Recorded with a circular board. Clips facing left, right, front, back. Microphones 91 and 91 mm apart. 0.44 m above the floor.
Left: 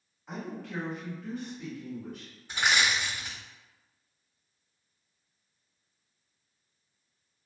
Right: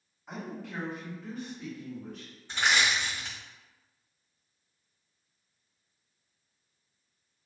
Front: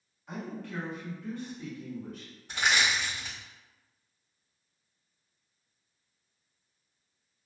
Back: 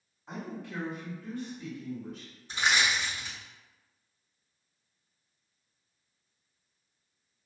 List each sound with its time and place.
0.3 s a woman speaking: 175° right, 1.1 m; by 2.3 s straight ahead, 1.5 m
2.5 s crushing: 15° left, 1.7 m